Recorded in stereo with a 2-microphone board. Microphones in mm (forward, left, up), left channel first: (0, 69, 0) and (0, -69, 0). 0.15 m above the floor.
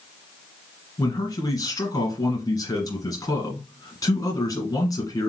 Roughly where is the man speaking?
Left.